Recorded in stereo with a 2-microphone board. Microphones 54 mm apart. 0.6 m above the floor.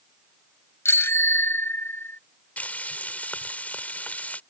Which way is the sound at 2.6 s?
30° left (ahead or behind).